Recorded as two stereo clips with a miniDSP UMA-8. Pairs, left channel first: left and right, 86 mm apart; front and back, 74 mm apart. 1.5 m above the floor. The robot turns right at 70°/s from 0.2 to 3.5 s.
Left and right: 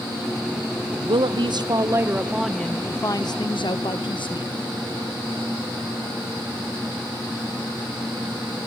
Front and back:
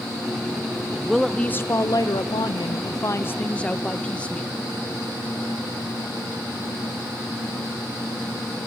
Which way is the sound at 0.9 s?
105° right.